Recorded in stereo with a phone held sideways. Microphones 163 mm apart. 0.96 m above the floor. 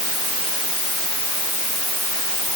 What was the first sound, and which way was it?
Only background noise.